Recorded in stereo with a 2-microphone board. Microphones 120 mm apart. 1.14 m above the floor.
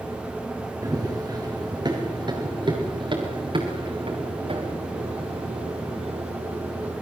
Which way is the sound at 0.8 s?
30° right (ahead or behind).